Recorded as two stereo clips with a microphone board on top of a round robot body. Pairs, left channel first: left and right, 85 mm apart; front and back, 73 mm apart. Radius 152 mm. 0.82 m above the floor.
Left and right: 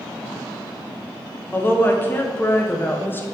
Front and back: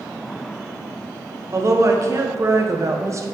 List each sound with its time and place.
1.5 s a woman speaking: 145° left, 1.1 m